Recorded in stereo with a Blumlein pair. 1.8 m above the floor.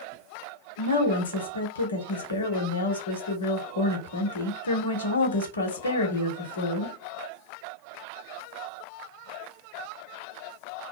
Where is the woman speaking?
70° left, 0.9 m.